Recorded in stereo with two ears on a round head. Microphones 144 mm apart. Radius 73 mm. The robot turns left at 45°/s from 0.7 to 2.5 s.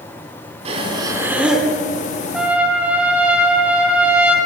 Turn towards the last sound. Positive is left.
turn(degrees=-10)  # may be behind; listen again after turning